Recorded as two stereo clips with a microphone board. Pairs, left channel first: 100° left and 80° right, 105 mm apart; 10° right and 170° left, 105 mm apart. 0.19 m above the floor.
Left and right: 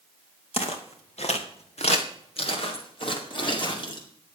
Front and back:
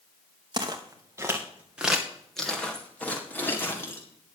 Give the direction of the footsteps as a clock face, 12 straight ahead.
8 o'clock.